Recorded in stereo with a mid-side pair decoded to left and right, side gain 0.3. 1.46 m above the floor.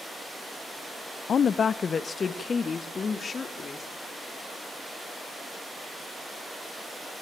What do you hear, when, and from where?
1.3 s a woman speaking: 70° left, 0.8 m; by 3.9 s 55° left, 4 m